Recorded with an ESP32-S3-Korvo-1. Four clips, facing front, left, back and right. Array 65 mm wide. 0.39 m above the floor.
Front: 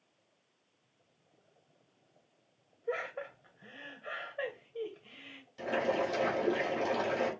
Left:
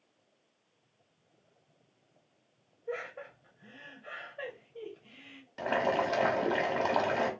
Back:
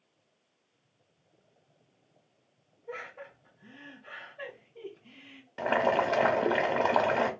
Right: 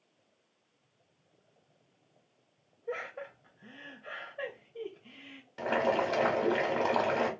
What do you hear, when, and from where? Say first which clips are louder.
2.9 s laughter: right 1 dB, front 5 dB; 5° right, 2 m
5.6 s boiling: right 1 dB, back 5 dB; 175° left, 1.1 m